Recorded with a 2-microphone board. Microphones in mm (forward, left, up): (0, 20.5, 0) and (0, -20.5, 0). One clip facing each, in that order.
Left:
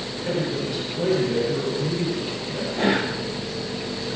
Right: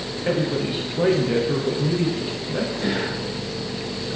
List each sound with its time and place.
0.2 s a man speaking: 35° right (ahead or behind), 9 m; by 2.7 s 45° right (ahead or behind), 8.5 m
2.8 s whispering: 65° left (ahead or behind), 3 m